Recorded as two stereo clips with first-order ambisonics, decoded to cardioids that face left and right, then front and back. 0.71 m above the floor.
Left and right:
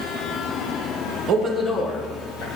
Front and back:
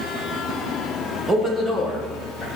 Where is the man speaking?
115° right, 0.6 m; by 2.5 s 85° left, 1.1 m.